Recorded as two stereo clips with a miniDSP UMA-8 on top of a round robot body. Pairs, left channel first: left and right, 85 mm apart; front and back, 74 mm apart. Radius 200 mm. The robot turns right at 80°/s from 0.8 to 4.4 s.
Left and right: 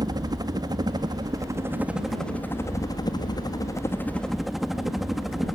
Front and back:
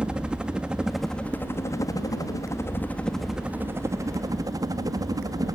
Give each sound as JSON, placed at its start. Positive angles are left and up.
{"t": 0.0, "sound": "a helicopter", "azimuth_deg": -105}